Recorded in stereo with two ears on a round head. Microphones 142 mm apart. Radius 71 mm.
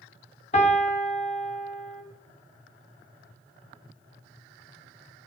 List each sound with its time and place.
0.5 s a piano: 45° left (ahead or behind), 2 m